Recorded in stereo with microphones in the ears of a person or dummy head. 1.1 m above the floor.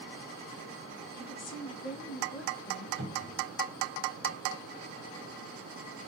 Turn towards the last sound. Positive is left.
turn(degrees=-75)  # may be behind; listen again after turning